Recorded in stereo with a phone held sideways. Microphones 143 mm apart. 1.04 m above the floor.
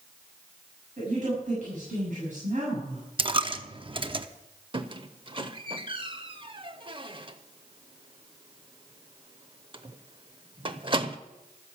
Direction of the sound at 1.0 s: 60° right (ahead or behind).